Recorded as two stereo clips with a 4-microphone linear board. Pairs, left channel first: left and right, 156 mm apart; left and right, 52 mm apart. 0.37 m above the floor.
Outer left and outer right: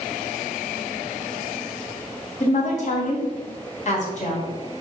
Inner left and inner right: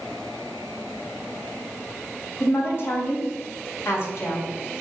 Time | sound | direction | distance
2.4 | a woman speaking | 50° left (ahead or behind) | 2.5 m